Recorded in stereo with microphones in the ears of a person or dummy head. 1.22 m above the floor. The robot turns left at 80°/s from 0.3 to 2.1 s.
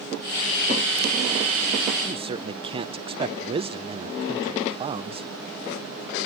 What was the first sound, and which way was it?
A man speaking, 30° right (ahead or behind).